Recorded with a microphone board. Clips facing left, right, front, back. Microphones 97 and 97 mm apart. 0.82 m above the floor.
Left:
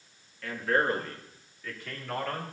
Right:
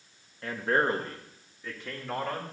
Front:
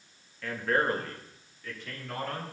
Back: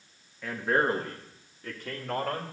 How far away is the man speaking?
About 1.1 m.